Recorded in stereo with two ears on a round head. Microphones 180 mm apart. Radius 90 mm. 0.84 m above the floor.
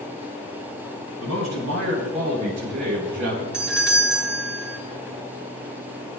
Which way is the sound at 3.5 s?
5° right (ahead or behind).